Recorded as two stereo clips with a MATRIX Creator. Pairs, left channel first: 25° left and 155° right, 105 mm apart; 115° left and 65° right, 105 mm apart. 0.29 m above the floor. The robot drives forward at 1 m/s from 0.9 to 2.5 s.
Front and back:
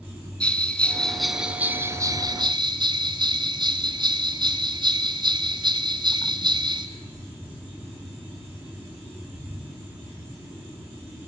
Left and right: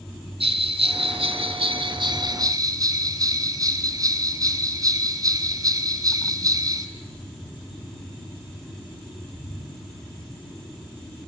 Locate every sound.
0.4 s a bell: 55° right, 1.6 m; by 6.9 s 120° right, 1.5 m